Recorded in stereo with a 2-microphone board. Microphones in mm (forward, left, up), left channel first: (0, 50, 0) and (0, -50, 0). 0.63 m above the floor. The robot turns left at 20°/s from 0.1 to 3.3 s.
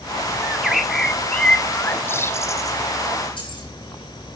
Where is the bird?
170° right, 0.6 m; by 2.8 s 140° left, 0.6 m.